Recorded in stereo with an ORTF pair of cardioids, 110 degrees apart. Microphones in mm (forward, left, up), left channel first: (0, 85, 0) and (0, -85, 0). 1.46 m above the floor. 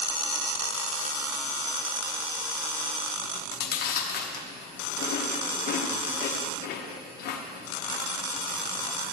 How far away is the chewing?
About 1.2 m.